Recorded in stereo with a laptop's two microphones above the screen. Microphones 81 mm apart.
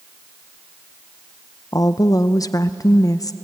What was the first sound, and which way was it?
A woman speaking, 45° left (ahead or behind).